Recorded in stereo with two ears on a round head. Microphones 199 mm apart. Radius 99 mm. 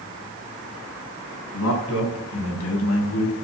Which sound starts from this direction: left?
A man speaking, at 1.5 s.